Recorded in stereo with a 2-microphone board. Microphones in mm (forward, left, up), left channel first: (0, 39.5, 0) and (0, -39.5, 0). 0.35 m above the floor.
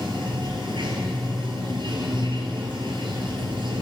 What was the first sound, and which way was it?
Running water, 85° right.